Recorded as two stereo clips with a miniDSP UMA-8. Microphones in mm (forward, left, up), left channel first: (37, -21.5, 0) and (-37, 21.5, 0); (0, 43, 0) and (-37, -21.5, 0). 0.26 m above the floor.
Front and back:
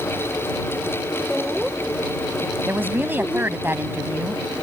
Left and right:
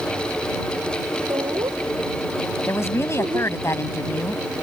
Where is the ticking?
No ticking in this recording.